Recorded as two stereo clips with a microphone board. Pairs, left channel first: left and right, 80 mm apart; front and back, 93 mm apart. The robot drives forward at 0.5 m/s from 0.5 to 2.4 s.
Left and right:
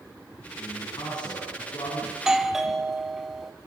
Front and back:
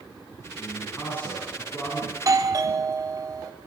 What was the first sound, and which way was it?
A man speaking, 65° left.